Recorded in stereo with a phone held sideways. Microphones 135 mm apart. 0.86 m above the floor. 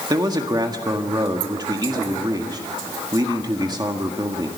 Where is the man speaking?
30° right (ahead or behind), 1.7 m.